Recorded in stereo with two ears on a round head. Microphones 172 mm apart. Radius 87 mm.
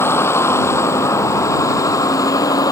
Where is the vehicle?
15° left (ahead or behind); by 2.7 s 20° left (ahead or behind).